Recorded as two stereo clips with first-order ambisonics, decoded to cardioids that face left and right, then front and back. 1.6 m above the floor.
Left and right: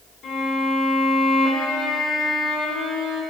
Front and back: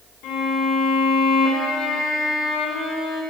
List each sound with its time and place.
0.2 s a violin: 30° left, 2.0 m